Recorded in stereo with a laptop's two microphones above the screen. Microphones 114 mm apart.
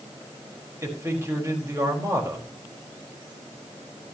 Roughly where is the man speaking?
Right.